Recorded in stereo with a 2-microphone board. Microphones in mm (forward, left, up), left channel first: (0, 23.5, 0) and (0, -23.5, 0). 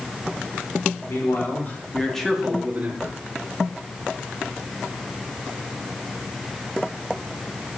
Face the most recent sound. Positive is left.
turn(degrees=-40)  # may be behind; listen again after turning